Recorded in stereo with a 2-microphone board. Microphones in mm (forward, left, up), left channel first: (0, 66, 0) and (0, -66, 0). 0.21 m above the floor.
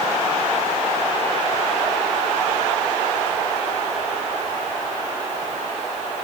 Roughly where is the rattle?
I don't hear a rattle.